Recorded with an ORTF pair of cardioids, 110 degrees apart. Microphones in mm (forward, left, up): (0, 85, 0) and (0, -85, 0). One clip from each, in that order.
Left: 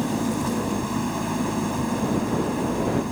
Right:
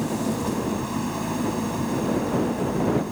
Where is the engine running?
25° left.